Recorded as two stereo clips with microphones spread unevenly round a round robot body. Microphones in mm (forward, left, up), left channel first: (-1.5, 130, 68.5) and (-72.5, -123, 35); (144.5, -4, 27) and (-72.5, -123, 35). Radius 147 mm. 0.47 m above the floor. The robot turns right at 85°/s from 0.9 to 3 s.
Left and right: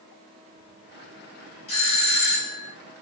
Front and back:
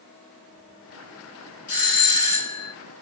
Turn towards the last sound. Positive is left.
turn(degrees=125)